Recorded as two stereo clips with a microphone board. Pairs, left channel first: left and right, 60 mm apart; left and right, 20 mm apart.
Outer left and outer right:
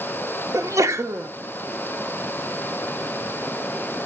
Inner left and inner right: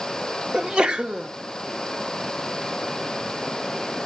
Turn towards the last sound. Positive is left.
turn(degrees=-55)  # may be behind; listen again after turning